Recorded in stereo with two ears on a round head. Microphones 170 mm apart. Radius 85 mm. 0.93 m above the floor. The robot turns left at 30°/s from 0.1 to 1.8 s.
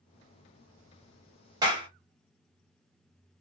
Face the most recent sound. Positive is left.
turn(degrees=-25)  # may be behind; listen again after turning